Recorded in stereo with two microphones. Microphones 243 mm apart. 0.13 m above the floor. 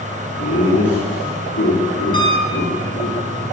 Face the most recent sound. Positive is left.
turn(degrees=20)  # may be behind; listen again after turning